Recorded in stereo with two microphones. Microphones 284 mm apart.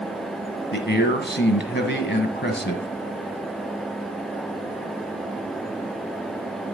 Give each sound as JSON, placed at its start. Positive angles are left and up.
{"t": 0.7, "sound": "a man speaking", "side_deg": 40, "distance_m": 1.5}